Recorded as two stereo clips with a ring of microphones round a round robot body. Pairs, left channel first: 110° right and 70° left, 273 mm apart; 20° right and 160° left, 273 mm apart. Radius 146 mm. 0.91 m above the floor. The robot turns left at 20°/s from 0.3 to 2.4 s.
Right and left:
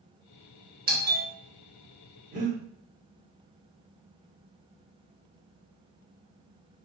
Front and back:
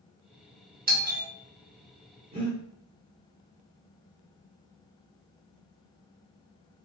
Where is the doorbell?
110° left, 0.9 m; by 1.3 s 105° left, 0.9 m.